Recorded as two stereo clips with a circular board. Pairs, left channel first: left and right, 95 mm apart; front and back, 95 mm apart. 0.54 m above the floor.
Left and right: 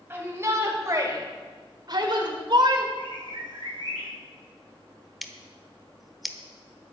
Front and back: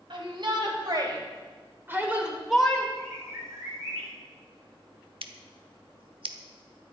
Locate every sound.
0.1 s a shout: 155° right, 4 m; by 2.9 s 75° right, 2.5 m
3.0 s a bird: 120° right, 5.5 m
5.2 s scissors: straight behind, 1.0 m